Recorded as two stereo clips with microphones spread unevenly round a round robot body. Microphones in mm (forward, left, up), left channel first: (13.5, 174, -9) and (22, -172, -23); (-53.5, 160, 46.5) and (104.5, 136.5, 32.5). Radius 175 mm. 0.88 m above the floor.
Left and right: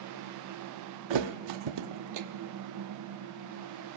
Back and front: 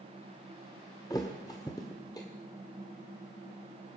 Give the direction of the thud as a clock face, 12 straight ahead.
4 o'clock.